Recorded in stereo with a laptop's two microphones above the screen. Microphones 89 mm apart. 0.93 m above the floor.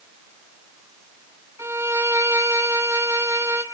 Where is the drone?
No drone in this recording.